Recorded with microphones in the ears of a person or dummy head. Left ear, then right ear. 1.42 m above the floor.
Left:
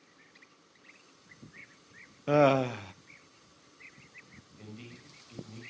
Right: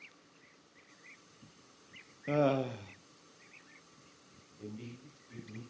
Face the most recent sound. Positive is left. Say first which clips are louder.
# right 2 dB
turn(degrees=85)